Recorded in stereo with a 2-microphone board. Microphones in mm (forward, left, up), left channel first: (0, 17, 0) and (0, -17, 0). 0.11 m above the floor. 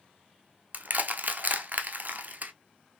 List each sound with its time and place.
0.7 s crushing: 55° right (ahead or behind), 0.5 m